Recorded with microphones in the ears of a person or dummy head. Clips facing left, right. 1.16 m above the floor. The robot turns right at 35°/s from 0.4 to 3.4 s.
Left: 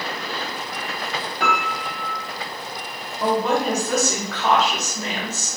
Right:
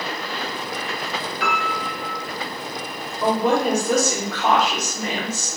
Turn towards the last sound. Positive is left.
turn(degrees=-10)  # may be behind; listen again after turning